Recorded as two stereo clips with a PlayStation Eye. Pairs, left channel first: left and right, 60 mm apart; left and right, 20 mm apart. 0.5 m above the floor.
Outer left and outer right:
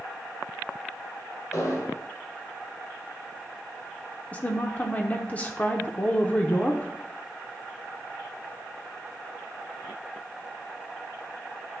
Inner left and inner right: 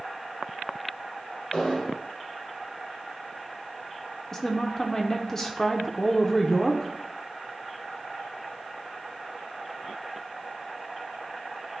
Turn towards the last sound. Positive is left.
turn(degrees=25)  # may be behind; listen again after turning